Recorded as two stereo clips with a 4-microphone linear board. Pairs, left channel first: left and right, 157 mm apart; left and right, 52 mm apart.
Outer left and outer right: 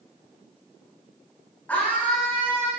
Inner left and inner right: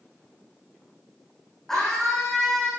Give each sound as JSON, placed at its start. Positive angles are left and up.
{"t": 1.7, "sound": "a scream", "side_deg": 10, "distance_m": 9.0}